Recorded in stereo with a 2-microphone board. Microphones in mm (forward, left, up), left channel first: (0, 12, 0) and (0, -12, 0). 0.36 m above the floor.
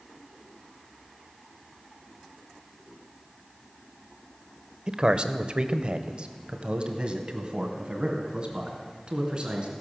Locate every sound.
4.9 s a man speaking: 35° right (ahead or behind), 0.9 m